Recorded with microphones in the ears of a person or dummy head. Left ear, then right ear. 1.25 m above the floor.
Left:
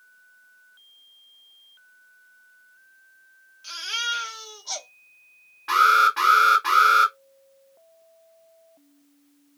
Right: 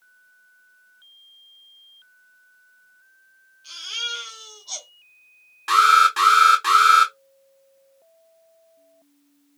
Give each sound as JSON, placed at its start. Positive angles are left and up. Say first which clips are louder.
{"t": 3.6, "sound": "a baby crying", "louder": "left 1 dB", "side_deg": 35, "distance_m": 1.0}
{"t": 5.7, "sound": "an alarm", "louder": "right 2 dB", "side_deg": -90, "distance_m": 2.5}